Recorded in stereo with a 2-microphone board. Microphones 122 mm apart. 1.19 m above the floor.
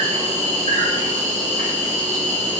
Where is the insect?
80° right, 0.8 m.